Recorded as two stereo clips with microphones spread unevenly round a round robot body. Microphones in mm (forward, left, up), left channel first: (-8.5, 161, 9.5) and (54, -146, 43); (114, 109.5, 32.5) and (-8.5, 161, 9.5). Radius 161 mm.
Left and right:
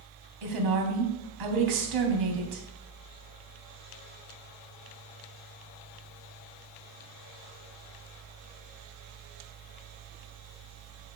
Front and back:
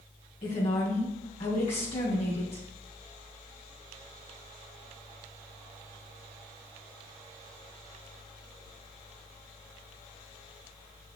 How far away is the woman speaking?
About 3 m.